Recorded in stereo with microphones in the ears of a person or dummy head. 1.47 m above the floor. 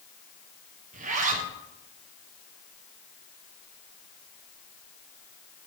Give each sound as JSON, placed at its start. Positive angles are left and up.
{"t": 0.9, "sound": "a zipper", "side_deg": -45, "distance_m": 0.7}